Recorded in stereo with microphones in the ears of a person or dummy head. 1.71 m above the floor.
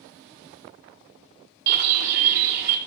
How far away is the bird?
About 1.5 m.